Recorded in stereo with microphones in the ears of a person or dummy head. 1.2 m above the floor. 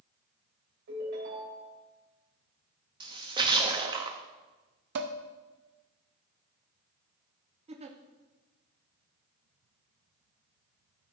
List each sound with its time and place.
0.9 s a ringtone: 60° right (ahead or behind), 3.5 m
3.0 s a splash: 25° right (ahead or behind), 0.9 m
5.0 s dishes clattering: 65° right (ahead or behind), 0.9 m
7.7 s a giggle: 35° right (ahead or behind), 0.8 m